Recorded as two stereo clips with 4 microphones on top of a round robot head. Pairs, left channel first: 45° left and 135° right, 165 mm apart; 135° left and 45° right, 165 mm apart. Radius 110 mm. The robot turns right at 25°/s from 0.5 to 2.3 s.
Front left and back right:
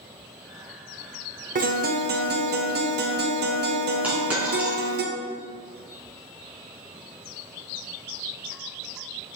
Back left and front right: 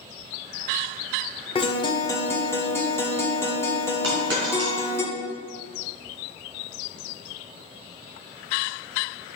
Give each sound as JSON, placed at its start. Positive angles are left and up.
{"t": 1.6, "sound": "a guitar", "azimuth_deg": -170, "distance_m": 1.4}
{"t": 4.0, "sound": "a dropped coin", "azimuth_deg": -50, "distance_m": 3.5}